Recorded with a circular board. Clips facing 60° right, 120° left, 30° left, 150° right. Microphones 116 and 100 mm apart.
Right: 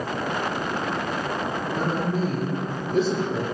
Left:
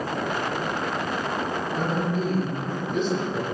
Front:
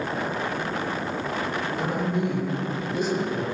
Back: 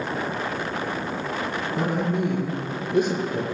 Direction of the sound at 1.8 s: 115° right.